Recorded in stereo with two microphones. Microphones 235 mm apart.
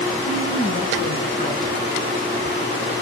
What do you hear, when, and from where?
0.3 s a woman speaking: 30° left (ahead or behind), 8 m